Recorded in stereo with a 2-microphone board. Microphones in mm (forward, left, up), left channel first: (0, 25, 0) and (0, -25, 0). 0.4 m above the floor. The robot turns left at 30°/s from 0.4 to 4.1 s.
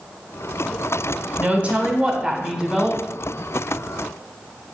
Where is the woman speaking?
120° right, 1.2 m; by 3.0 s 170° right, 1.2 m.